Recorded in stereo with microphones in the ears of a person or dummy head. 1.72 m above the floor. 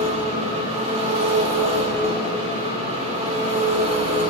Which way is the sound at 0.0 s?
35° right (ahead or behind).